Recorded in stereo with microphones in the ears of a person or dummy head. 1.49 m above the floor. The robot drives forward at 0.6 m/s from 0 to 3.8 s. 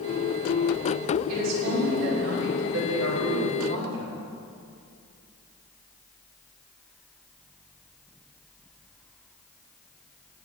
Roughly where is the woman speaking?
Right.